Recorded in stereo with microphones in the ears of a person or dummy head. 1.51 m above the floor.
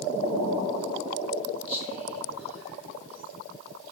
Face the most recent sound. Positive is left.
turn(degrees=5)  # may be behind; listen again after turning